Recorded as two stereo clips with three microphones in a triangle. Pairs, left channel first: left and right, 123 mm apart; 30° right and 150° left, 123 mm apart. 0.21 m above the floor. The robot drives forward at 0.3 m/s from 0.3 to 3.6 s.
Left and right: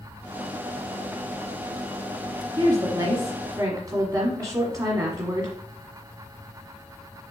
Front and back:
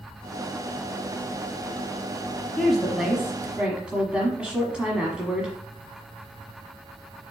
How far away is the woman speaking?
About 1.3 m.